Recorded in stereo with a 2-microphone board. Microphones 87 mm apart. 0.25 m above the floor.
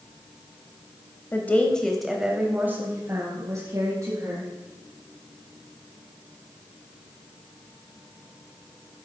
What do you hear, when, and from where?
1.3 s a woman speaking: 25° left (ahead or behind), 0.9 m; by 4.5 s 45° right (ahead or behind), 1.8 m